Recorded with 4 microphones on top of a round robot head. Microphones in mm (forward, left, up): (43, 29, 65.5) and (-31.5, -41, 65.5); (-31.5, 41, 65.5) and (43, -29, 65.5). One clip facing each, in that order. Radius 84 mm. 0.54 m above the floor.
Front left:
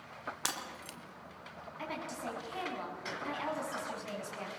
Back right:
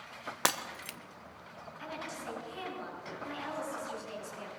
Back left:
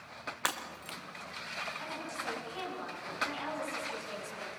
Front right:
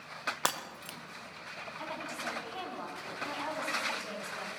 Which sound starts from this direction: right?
Breaking glass, at 0.5 s.